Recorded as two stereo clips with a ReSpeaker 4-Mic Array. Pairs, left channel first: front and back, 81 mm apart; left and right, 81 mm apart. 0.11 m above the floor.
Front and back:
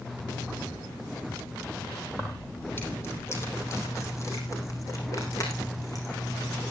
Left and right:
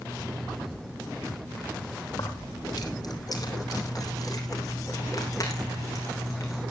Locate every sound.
2.1 s keys jangling: 65° left, 2.5 m; by 6.6 s 40° left, 5 m